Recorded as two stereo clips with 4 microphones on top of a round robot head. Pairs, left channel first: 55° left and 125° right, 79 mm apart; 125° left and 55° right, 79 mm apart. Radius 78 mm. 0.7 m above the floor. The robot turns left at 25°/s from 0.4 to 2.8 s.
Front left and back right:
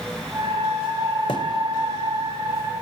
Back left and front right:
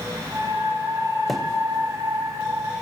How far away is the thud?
About 0.7 m.